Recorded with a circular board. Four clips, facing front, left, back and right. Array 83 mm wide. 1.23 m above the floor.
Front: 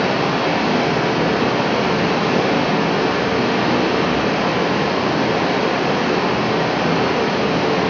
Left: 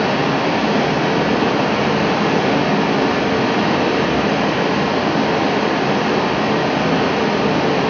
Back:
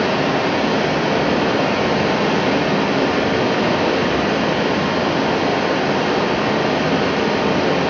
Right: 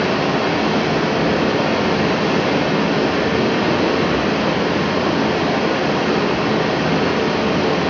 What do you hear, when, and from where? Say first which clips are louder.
0.0 s running water: left 1 dB, even; 75° left, 0.9 m